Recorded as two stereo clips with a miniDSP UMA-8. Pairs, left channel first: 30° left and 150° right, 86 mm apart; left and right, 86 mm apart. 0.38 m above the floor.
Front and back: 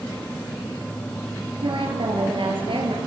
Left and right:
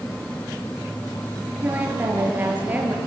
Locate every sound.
1.6 s a woman speaking: 160° right, 6.5 m